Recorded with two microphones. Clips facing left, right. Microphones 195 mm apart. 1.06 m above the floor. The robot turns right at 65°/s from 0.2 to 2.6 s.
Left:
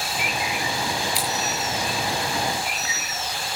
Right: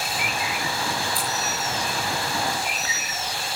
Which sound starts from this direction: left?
Scissors, at 1.1 s.